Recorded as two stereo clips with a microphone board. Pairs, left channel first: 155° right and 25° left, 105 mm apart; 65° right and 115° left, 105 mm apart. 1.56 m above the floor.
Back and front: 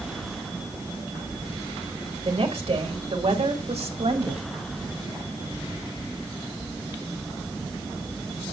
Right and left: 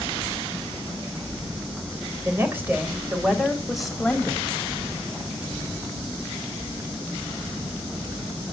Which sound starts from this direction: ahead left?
A woman speaking, at 2.2 s.